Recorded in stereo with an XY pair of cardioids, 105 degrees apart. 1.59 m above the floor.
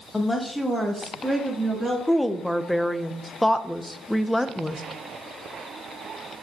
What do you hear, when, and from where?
0.1 s a woman speaking: 20° left, 1.8 m; by 2.0 s 20° right, 3 m
2.1 s a woman speaking: 5° left, 0.6 m